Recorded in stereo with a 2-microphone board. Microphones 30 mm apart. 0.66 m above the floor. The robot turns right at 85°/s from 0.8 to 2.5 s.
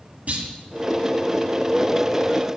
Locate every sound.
0.3 s a clunk: 55° right (ahead or behind), 1.3 m